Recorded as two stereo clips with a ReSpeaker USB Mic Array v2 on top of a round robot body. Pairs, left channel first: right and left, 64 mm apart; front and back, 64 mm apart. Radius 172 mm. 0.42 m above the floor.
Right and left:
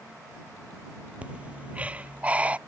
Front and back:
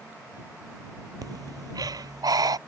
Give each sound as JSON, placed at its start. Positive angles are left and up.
{"t": 1.2, "sound": "breathing", "azimuth_deg": 160}